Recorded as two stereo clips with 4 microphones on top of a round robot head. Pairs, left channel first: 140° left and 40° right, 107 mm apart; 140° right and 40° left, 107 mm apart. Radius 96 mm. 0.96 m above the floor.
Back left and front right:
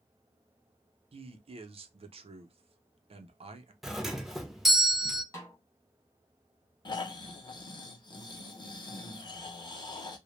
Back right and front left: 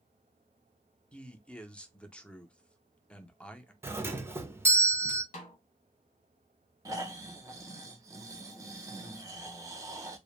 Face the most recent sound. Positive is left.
turn(degrees=95)